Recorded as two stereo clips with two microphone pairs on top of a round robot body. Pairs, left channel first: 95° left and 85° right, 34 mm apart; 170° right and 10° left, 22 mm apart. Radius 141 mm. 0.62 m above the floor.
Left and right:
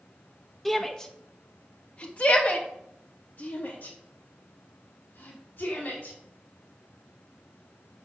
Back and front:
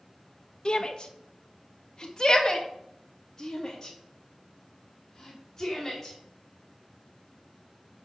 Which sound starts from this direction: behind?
A shout, at 0.7 s.